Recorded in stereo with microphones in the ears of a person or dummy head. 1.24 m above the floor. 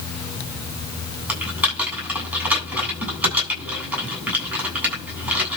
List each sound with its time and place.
1.3 s typing on a keyboard: 10° right (ahead or behind), 8.5 m